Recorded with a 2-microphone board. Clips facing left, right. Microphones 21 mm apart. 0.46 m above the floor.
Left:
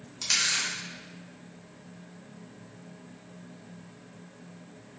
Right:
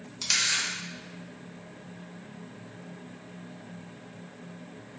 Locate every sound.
0.2 s a camera shutter: 10° right (ahead or behind), 0.6 m